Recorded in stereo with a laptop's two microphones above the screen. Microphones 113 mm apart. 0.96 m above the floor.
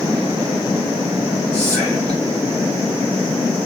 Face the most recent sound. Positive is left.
turn(degrees=-10)  # may be behind; listen again after turning